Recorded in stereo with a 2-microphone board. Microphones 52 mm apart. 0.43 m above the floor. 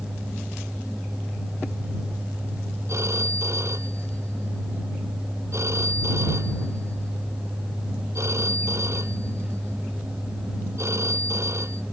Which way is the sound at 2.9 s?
65° right (ahead or behind).